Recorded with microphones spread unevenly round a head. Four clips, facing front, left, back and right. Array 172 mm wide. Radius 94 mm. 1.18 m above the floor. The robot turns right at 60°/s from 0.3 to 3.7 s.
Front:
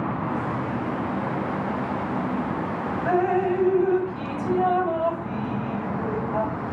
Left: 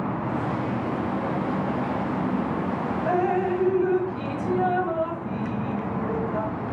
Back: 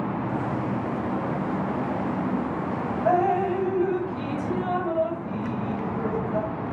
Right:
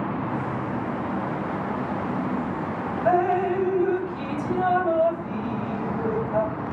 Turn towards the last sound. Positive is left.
turn(degrees=-105)